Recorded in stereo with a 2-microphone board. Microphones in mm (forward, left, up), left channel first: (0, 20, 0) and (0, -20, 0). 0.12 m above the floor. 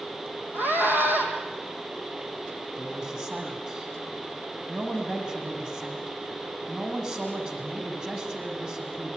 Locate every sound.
0.5 s a scream: 60° right (ahead or behind), 5 m
2.8 s a man speaking: 25° right (ahead or behind), 6 m